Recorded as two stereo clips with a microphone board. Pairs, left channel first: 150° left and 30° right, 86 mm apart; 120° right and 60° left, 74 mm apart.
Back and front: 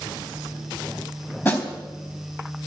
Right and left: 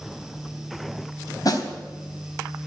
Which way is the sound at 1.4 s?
155° right.